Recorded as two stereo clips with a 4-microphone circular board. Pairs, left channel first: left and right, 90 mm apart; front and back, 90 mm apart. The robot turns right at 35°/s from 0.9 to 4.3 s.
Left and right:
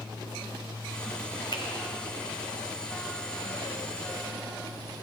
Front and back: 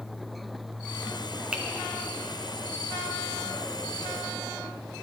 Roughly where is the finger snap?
Left.